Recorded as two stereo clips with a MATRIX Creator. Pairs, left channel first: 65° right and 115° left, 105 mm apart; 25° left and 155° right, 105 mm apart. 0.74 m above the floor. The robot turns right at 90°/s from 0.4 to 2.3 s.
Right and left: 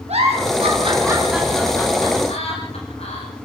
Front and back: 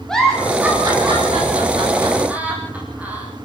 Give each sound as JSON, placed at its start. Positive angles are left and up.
{"t": 0.1, "sound": "a giggle", "azimuth_deg": 105, "distance_m": 6.5}